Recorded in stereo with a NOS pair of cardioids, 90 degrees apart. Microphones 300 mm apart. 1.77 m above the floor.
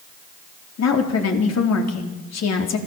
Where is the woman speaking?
60° left, 4 m.